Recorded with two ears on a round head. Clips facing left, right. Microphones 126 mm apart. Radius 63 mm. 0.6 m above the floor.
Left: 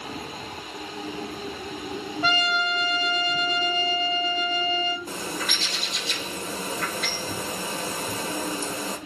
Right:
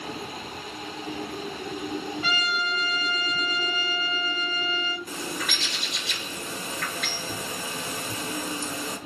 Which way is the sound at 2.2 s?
50° left (ahead or behind).